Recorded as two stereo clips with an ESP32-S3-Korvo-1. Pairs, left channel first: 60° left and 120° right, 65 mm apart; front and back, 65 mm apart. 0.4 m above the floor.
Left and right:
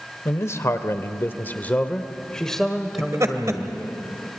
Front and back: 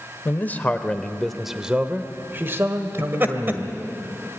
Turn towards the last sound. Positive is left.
turn(degrees=-130)